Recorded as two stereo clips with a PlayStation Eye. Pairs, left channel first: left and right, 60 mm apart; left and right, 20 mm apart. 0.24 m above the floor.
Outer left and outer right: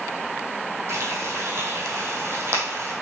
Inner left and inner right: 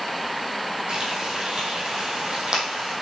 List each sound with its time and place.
0.9 s frying: 50° right (ahead or behind), 2.5 m